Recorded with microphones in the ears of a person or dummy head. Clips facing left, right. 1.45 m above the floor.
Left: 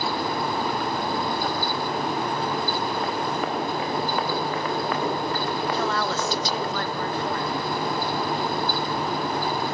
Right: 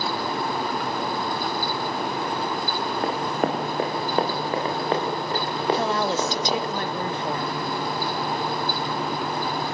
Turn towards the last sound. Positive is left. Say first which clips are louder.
# right 2 dB
turn(degrees=-15)  # may be behind; listen again after turning